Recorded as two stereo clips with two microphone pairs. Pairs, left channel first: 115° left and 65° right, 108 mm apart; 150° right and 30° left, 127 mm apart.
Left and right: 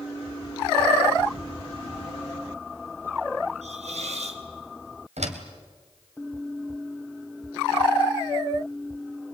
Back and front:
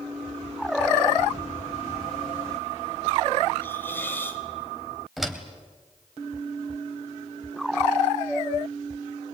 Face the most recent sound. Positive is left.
turn(degrees=-60)